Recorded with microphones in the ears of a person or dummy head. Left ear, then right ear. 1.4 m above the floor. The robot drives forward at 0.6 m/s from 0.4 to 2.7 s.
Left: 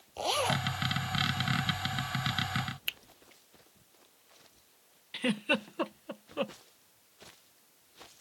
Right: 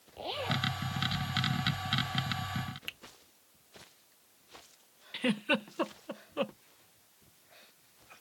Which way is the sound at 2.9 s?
15° left (ahead or behind).